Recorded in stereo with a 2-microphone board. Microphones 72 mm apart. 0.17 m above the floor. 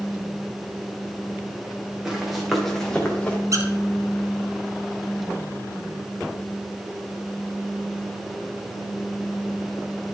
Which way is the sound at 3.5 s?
50° right (ahead or behind).